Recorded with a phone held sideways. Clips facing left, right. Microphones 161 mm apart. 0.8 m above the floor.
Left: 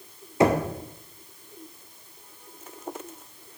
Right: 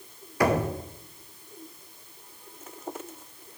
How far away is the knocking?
About 0.7 m.